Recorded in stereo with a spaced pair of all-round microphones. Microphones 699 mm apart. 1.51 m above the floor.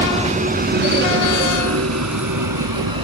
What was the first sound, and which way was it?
A vehicle, 10° right (ahead or behind).